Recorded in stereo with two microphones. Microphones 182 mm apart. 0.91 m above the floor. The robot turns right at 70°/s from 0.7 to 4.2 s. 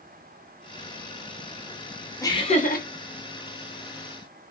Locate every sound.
2.2 s laughter: 20° left, 0.9 m; by 2.9 s 65° left, 0.9 m